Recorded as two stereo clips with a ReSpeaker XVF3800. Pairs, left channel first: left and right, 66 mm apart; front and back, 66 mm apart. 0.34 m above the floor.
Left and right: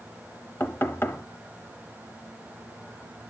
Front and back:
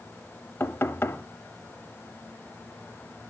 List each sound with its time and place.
0.6 s knocking: 50° left, 0.9 m